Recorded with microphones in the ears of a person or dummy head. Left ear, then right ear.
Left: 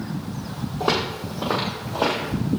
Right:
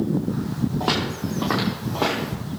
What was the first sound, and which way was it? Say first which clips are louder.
Footsteps: left 2 dB; 10° right (ahead or behind).